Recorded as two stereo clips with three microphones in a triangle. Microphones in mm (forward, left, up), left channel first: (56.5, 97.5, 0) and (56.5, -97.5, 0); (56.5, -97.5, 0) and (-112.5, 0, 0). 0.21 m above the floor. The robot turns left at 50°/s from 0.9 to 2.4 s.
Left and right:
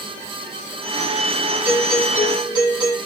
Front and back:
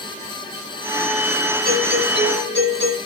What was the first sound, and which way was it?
A doorbell, 170° right.